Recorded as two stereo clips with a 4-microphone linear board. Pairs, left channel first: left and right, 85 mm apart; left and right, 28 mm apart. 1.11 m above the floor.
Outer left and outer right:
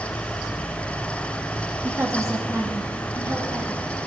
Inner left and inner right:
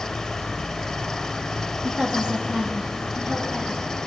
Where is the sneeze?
I don't hear a sneeze.